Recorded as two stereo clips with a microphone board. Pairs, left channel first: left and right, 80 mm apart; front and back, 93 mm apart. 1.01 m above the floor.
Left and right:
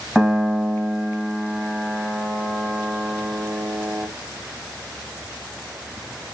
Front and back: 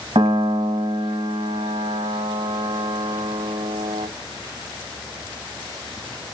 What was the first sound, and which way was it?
A piano, 175° right.